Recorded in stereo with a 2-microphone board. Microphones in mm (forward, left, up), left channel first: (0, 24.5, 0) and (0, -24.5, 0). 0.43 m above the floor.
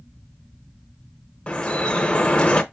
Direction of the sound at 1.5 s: 20° left (ahead or behind).